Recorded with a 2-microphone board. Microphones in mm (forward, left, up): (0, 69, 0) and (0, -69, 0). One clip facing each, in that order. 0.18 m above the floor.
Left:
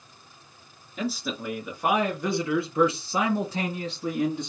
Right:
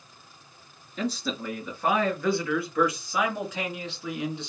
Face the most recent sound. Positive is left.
turn(degrees=50)  # may be behind; listen again after turning